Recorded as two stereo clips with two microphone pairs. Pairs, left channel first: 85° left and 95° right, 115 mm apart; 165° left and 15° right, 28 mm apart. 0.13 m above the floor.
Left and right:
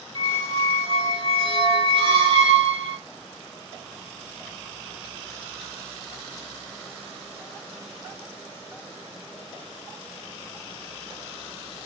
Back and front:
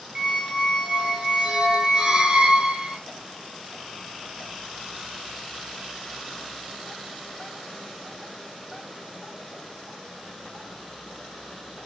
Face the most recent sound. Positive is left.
turn(degrees=-75)